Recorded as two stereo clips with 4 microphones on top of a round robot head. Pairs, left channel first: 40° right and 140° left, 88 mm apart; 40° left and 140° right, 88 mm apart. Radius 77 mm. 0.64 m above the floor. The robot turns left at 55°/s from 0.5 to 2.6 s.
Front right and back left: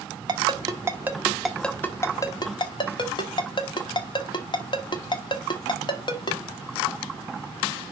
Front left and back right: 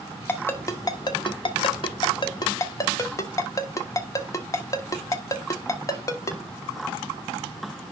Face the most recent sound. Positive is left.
turn(degrees=-15)